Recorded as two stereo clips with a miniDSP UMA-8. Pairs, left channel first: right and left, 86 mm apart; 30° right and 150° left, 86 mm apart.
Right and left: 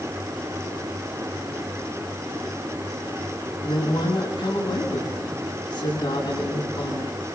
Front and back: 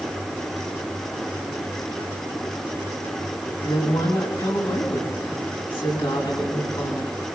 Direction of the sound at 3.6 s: 55° right.